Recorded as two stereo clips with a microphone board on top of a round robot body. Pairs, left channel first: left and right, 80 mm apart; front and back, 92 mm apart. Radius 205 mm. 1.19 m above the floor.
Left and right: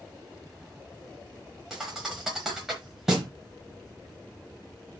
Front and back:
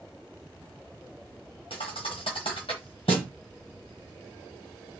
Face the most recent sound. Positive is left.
turn(degrees=-10)